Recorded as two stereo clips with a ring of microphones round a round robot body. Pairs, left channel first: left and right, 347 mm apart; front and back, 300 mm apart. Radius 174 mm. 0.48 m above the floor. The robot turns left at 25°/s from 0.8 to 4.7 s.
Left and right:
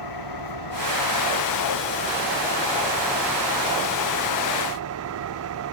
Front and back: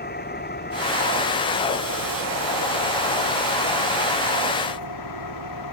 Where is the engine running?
60° left; by 5.7 s 40° right.